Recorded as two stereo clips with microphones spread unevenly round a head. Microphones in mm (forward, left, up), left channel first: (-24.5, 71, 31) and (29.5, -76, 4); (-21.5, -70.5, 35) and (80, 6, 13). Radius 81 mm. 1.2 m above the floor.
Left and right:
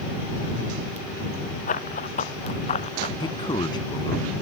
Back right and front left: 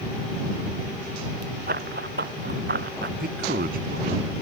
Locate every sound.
1.7 s running footsteps: 70° left; by 3.1 s 55° left
3.2 s a man speaking: 45° left